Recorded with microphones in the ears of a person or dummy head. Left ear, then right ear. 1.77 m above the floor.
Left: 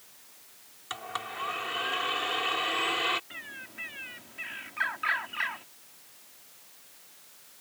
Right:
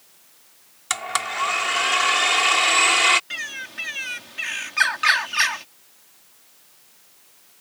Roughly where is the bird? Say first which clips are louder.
Right 12 dB; right.